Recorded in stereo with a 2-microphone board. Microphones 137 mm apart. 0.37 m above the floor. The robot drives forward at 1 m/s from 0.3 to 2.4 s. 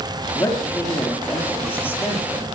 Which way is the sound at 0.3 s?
20° left (ahead or behind).